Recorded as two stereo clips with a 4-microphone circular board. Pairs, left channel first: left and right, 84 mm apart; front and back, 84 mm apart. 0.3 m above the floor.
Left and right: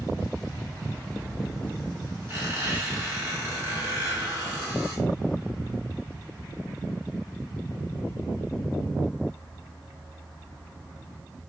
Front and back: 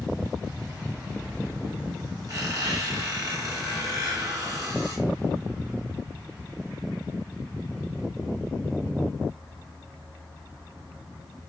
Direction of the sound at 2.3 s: 140° right.